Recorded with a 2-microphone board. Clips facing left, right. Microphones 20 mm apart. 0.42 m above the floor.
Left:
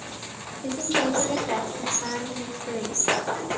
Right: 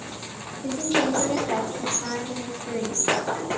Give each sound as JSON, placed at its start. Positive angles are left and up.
{"t": 0.6, "sound": "a woman speaking", "side_deg": 25, "distance_m": 1.6}